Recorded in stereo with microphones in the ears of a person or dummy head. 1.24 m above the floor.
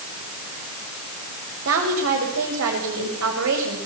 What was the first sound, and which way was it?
A woman speaking, 70° right (ahead or behind).